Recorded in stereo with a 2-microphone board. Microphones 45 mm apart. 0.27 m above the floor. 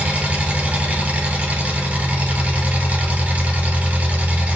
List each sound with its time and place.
0.0 s an engine running: 35° right (ahead or behind), 1.6 m